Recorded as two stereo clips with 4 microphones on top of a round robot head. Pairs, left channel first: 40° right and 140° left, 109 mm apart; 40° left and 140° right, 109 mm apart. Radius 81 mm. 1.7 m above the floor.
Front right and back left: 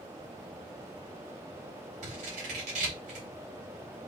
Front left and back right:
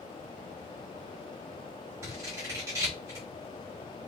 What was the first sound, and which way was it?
Scissors, 155° left.